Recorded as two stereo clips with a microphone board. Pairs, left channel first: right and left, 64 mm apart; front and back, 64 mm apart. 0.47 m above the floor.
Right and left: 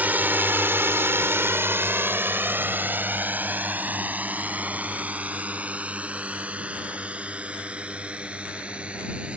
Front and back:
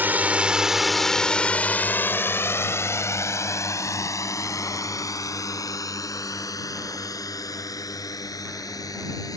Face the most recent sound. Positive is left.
turn(degrees=20)